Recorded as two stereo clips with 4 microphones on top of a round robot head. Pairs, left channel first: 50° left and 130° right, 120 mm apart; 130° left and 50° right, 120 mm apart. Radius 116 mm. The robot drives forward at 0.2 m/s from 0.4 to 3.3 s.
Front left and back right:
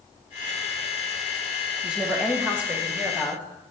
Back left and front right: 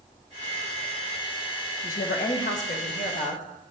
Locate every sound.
1.8 s a woman speaking: 145° left, 1.8 m; by 3.4 s 150° left, 2 m